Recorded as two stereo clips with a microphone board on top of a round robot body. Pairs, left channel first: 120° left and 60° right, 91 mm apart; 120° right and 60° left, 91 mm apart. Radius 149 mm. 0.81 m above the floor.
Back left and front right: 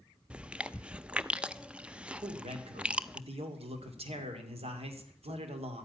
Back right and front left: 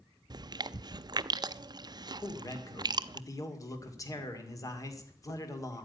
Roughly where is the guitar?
No guitar in this recording.